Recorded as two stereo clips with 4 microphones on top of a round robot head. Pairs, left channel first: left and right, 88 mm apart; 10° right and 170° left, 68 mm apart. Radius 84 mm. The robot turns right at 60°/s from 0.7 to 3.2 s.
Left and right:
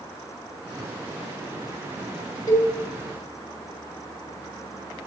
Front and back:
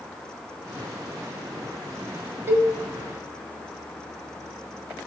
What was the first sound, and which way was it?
A cowbell, 130° left.